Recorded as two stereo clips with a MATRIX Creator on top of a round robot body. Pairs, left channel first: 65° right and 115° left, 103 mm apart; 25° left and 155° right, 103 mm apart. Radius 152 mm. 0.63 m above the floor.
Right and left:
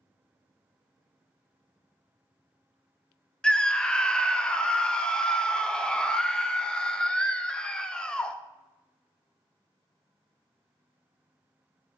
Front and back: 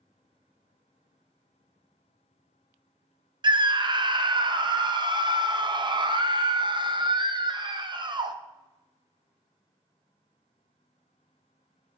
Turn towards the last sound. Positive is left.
turn(degrees=-150)